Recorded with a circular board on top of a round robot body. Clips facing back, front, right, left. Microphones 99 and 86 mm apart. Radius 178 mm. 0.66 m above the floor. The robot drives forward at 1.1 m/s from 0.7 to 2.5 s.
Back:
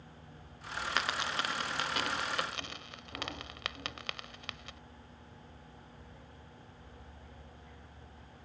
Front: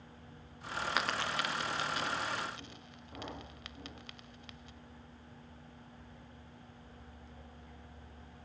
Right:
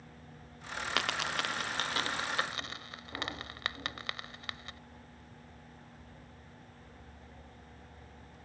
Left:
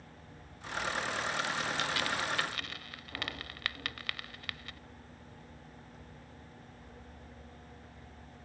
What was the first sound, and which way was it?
A dropped coin, 85° right.